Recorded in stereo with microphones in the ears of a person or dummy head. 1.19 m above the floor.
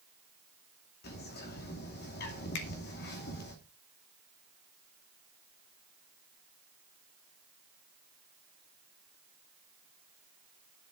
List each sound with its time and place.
1.0 s a bird: 50° left (ahead or behind), 2.5 m
2.5 s a finger snap: 60° left (ahead or behind), 2 m